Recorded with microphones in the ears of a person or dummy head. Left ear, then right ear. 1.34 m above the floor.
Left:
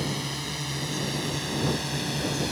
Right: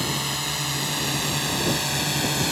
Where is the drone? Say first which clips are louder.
Right 5 dB; 30° right (ahead or behind); by 2.5 s 35° right (ahead or behind).